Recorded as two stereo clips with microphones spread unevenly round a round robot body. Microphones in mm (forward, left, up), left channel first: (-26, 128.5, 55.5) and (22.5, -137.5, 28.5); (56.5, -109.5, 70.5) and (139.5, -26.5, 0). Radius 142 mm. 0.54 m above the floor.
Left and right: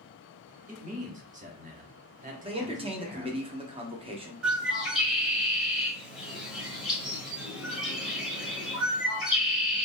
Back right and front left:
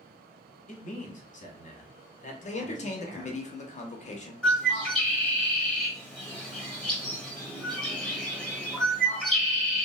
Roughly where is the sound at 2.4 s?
Right.